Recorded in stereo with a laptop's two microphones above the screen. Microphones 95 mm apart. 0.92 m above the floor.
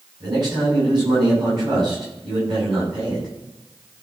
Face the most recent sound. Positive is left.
turn(degrees=-50)  # may be behind; listen again after turning